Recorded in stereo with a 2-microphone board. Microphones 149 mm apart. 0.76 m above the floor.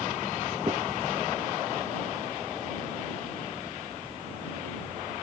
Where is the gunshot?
30° right (ahead or behind).